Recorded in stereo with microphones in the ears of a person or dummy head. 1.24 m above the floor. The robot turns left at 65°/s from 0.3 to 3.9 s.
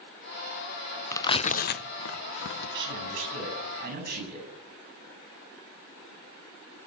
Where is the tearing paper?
15° left (ahead or behind), 0.6 m; by 2.8 s 55° left (ahead or behind), 0.6 m.